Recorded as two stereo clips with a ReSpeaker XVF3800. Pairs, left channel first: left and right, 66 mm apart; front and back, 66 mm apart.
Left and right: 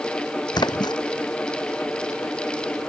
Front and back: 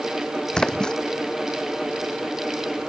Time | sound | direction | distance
0.5 | a splash | 75° left | ?